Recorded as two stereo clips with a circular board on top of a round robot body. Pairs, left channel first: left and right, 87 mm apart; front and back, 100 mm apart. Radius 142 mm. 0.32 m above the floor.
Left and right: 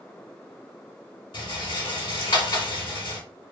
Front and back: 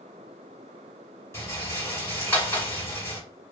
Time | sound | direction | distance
1.3 | a rattle | 65° left | 1.4 m